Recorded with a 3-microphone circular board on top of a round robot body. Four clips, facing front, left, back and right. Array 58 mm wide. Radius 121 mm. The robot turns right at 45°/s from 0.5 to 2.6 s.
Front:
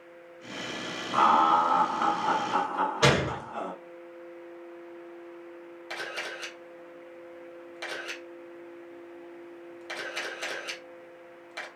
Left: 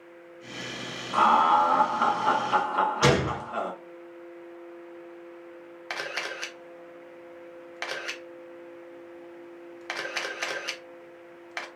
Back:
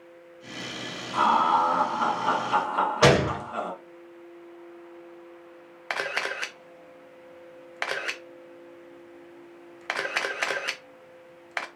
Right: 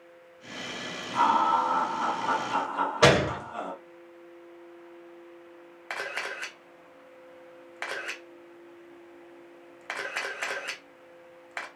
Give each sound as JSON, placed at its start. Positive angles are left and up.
{"t": 1.1, "sound": "laughter", "azimuth_deg": 55, "distance_m": 1.6}
{"t": 3.0, "sound": "a gunshot", "azimuth_deg": -125, "distance_m": 1.5}
{"t": 5.9, "sound": "a camera shutter", "azimuth_deg": -170, "distance_m": 0.6}